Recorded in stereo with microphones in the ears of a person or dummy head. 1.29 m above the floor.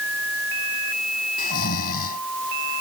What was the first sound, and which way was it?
Snoring, 50° left (ahead or behind).